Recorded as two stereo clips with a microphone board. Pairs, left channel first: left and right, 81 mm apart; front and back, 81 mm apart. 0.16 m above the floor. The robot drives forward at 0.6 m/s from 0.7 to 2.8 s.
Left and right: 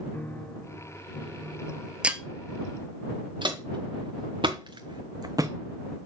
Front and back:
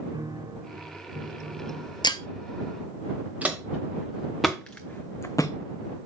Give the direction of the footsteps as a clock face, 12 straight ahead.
4 o'clock.